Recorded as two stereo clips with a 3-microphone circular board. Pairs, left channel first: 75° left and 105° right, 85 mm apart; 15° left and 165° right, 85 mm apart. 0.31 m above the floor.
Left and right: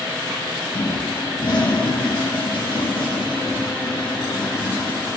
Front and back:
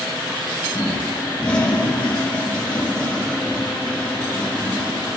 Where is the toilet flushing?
90° left, 4 m.